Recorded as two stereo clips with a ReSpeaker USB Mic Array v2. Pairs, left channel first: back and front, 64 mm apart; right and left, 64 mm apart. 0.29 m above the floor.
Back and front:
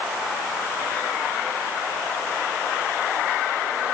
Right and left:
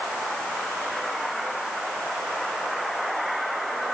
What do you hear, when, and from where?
Only background noise.